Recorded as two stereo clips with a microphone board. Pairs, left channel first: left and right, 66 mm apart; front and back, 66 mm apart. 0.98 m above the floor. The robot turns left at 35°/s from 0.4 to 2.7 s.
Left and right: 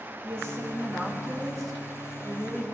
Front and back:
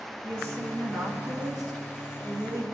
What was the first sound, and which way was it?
A woman speaking, 140° right.